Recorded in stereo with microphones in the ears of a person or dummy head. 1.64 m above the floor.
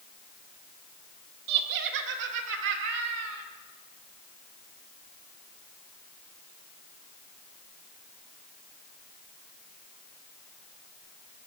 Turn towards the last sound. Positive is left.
turn(degrees=-65)  # may be behind; listen again after turning